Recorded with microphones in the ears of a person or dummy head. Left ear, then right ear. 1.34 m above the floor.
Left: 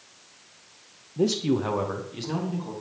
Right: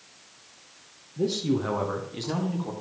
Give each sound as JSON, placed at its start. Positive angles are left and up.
{"t": 1.2, "sound": "a man speaking", "side_deg": 55, "distance_m": 0.6}